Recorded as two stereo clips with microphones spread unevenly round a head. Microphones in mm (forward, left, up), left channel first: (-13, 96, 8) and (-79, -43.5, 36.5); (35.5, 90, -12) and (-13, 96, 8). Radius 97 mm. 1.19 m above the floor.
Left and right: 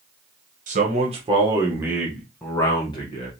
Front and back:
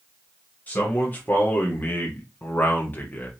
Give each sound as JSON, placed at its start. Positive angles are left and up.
{"t": 0.7, "sound": "a man speaking", "azimuth_deg": -65, "distance_m": 1.4}